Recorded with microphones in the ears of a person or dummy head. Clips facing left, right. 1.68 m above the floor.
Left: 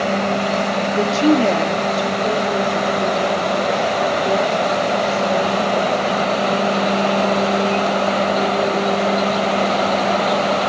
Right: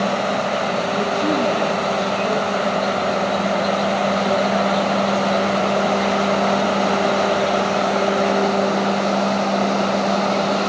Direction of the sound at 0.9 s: 50° left (ahead or behind).